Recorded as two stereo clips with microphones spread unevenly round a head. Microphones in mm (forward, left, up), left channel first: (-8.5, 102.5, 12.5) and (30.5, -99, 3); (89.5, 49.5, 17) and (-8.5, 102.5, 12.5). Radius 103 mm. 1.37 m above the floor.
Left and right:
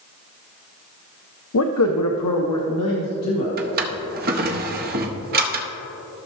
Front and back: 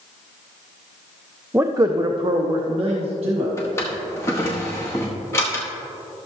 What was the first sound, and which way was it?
A man speaking, 75° left.